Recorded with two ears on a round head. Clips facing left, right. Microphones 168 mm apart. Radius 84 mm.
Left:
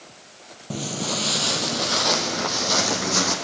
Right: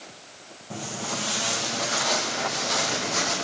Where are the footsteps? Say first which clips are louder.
Left 5 dB; 50° left (ahead or behind), 2 m; by 3.4 s 65° left (ahead or behind), 3.5 m.